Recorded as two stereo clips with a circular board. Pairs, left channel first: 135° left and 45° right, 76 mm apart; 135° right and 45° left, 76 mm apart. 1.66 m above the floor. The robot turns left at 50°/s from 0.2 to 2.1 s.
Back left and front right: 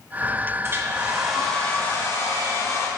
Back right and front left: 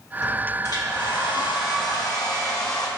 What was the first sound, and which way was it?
A hair dryer, 100° right.